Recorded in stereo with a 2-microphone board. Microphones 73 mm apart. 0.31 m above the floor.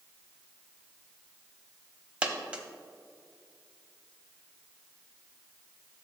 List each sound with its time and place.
2.2 s a dropped coin: 15° right (ahead or behind), 0.8 m